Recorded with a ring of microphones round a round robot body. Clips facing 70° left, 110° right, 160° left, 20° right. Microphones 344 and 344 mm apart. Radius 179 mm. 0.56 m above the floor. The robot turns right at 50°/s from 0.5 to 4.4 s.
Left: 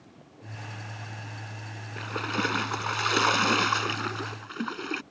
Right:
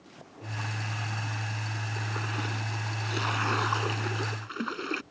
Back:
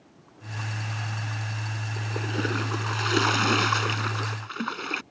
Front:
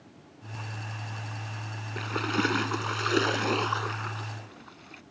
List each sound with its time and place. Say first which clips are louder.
2.0 s a splash: left 7 dB, front 2 dB; 25° left; by 5.0 s 145° left